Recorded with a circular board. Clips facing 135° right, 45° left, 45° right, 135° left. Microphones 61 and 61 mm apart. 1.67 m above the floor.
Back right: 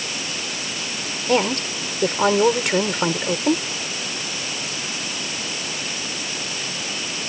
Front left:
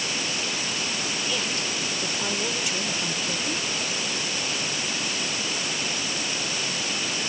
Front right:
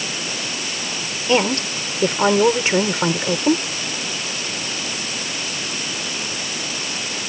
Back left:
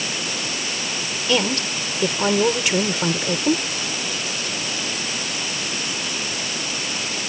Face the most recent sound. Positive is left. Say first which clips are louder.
# back right 9 dB, front right 3 dB
turn(degrees=-100)